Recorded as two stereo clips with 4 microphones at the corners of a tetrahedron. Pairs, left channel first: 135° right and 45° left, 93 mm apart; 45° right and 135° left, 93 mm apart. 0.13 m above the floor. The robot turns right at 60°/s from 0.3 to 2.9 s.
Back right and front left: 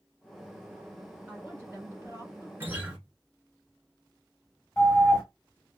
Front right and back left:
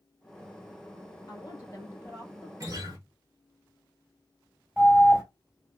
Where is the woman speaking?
25° right, 1.5 m; by 2.5 s 50° left, 1.5 m.